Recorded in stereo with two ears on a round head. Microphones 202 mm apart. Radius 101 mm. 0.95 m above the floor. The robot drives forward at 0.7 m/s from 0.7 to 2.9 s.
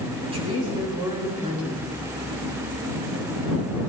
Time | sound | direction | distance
0.2 | a woman speaking | 30° right (ahead or behind) | 7 m